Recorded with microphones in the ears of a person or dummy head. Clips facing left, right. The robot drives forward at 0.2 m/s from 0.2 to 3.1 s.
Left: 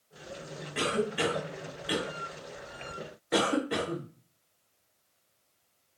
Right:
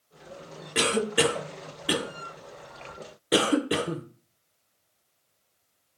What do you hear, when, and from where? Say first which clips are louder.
0.8 s a cough: right 5 dB; 70° right (ahead or behind), 0.5 m; by 4.0 s 40° right (ahead or behind), 0.7 m